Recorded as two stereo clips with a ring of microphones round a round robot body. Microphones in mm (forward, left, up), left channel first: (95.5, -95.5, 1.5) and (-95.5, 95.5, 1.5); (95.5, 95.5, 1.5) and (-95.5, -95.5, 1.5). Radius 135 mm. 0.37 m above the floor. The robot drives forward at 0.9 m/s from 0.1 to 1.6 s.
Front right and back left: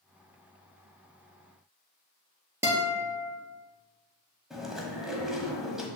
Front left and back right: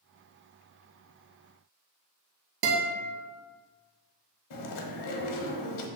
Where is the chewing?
45° left, 1.0 m.